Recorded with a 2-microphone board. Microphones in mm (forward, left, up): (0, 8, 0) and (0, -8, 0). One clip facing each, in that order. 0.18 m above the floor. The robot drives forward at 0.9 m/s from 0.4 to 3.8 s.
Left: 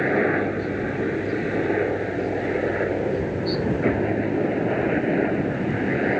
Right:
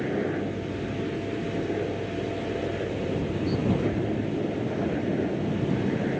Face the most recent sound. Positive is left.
turn(degrees=45)  # may be behind; listen again after turning